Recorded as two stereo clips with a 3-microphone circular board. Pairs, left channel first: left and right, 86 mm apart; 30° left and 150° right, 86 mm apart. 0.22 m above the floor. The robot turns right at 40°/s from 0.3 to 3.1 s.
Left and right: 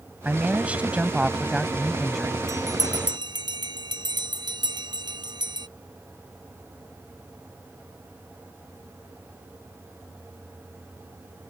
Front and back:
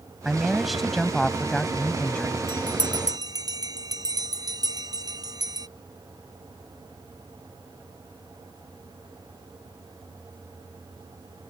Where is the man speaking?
80° right; by 2.4 s 5° left.